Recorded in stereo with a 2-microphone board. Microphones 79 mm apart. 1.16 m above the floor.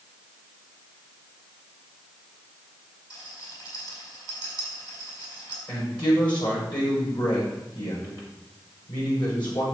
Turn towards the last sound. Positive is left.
turn(degrees=75)  # may be behind; listen again after turning